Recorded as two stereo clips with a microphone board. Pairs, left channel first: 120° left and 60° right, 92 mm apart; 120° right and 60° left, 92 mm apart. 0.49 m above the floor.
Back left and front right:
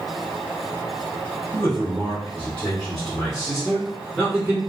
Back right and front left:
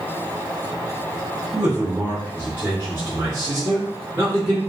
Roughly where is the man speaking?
Behind left.